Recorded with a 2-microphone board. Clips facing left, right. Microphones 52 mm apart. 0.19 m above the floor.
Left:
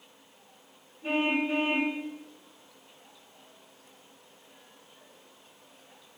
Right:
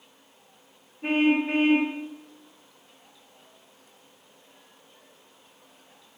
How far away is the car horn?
About 9.5 m.